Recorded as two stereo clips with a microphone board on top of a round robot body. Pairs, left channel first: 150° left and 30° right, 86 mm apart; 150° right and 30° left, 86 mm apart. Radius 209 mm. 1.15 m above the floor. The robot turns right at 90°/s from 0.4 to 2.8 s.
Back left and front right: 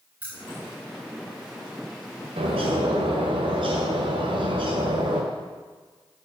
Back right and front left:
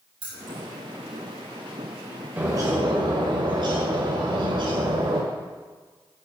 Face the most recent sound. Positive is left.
turn(degrees=0)